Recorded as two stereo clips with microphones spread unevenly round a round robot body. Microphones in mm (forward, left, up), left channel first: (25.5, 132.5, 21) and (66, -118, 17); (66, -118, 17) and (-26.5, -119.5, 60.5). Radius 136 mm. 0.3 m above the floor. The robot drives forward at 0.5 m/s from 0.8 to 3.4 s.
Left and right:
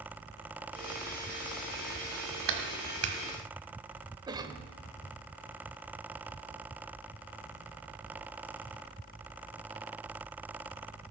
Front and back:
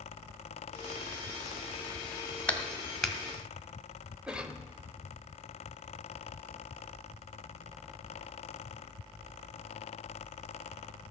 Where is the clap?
60° right, 1.6 m; by 3.2 s 70° right, 1.5 m.